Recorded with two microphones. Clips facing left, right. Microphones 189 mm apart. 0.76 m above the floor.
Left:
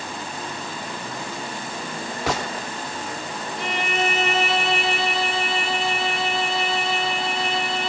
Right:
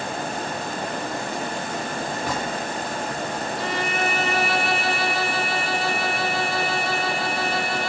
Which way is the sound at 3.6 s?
20° left (ahead or behind).